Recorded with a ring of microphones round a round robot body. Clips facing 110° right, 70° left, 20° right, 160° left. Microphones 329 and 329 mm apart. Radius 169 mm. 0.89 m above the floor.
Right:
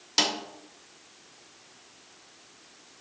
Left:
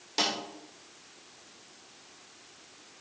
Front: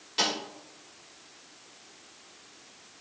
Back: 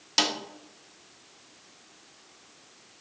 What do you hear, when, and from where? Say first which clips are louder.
0.2 s a snare drum: right 2 dB, back 2 dB; 175° right, 1.2 m